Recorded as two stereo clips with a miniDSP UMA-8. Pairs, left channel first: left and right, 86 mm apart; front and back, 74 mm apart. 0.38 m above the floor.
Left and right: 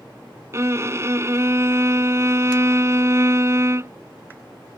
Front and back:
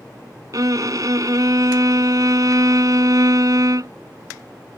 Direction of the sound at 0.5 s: 145° right.